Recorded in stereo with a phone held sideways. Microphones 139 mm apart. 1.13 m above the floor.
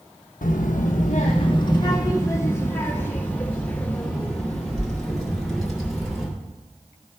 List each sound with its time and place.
0.4 s a child speaking: 85° left, 0.6 m; by 6.3 s centre (ahead or behind), 3 m